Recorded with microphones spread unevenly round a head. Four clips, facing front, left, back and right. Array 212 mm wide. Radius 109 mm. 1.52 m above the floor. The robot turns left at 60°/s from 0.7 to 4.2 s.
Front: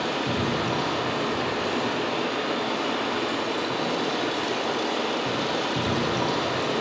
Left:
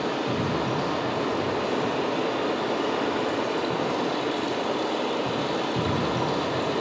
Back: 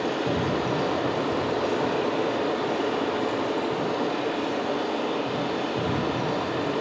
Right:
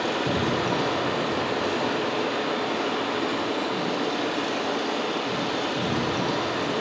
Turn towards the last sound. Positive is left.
turn(degrees=40)